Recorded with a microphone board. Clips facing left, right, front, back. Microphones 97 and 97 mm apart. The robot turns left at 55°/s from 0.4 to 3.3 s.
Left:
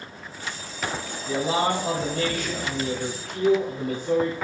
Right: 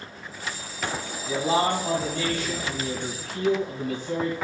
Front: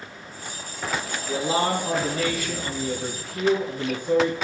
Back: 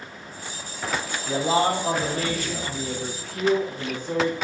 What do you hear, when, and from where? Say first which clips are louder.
1.3 s a man speaking: even, back 2 dB; 170° right, 2 m; by 4.3 s 75° left, 2 m